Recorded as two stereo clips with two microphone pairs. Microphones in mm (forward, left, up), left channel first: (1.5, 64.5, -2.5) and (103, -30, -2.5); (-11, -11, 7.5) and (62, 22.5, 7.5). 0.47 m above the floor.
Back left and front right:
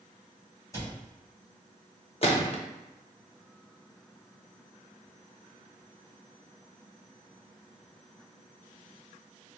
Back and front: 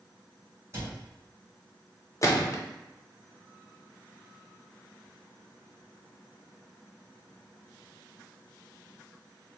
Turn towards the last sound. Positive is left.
turn(degrees=165)